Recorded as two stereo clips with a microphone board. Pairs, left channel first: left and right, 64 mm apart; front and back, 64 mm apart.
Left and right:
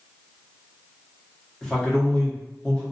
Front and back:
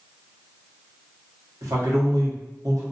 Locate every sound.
1.6 s a man speaking: 170° left, 1.0 m